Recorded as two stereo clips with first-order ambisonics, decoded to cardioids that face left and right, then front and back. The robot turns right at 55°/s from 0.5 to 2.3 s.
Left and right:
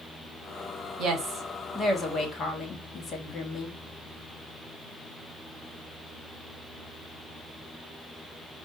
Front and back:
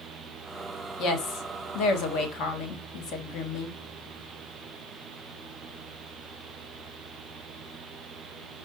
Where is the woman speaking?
45° right, 0.9 m; by 3.8 s 30° left, 0.9 m.